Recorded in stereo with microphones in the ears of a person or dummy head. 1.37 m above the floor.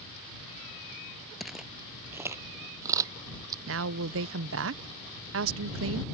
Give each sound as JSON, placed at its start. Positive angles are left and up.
{"t": 1.4, "sound": "footsteps", "side_deg": 0}
{"t": 3.7, "sound": "a woman speaking", "side_deg": -70}